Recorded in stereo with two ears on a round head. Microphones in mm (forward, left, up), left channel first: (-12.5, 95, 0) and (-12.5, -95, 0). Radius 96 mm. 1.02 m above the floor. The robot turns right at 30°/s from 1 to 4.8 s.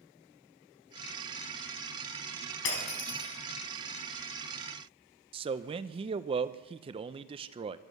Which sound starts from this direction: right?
A man speaking, at 5.3 s.